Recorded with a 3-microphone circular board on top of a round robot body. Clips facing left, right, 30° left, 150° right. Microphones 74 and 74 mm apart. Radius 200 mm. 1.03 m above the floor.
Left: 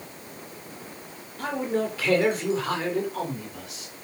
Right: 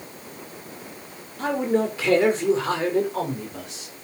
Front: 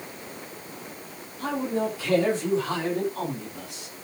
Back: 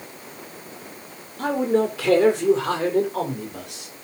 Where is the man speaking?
155° right, 4 m; by 4.0 s 150° right, 5 m.